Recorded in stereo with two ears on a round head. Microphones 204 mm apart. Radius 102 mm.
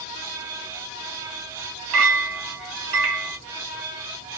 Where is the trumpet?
No trumpet in this recording.